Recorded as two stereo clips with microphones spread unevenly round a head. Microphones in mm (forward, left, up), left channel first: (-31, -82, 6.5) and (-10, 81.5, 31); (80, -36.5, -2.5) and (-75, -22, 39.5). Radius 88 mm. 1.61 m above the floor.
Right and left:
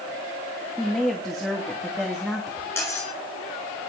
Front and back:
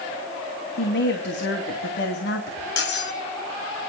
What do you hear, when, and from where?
0.8 s a woman speaking: 5° right, 2.5 m
2.8 s cutlery clinking: 20° right, 3.5 m